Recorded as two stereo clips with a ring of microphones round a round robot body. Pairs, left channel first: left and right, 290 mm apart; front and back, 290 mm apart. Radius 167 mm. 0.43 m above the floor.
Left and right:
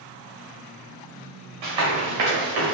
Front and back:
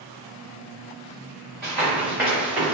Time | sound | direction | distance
1.6 | running footsteps | 85° right | 1.6 m